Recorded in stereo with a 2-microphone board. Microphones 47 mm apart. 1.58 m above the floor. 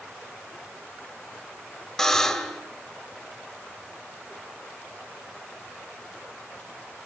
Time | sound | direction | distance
2.0 | a buzzer | 10° left (ahead or behind) | 2.5 m